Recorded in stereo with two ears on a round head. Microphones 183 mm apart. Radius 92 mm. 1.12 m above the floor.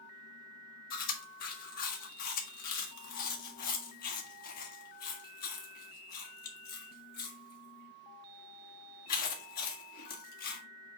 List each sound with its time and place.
0.9 s chewing: 45° left (ahead or behind), 1.6 m